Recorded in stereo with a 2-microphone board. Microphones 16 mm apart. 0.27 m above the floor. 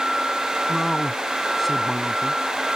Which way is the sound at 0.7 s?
5° right (ahead or behind).